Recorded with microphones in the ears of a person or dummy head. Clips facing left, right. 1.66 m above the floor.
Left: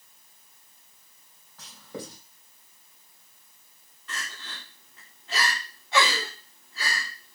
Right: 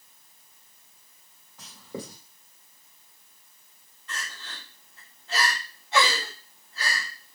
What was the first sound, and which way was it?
Writing, 10° right (ahead or behind).